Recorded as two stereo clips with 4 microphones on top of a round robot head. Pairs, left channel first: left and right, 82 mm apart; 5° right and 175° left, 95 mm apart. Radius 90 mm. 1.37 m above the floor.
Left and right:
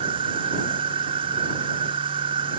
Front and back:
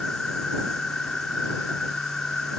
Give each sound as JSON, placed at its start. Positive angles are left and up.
{"t": 0.0, "sound": "an insect", "azimuth_deg": -90}